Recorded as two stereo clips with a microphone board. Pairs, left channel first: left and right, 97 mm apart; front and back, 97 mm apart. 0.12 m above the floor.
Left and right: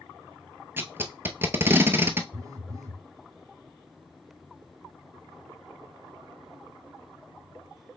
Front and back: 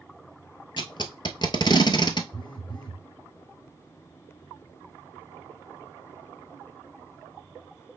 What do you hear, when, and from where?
0.8 s tape being pulled: 25° right, 0.7 m
2.3 s a phone buzzing: 35° right, 1.0 m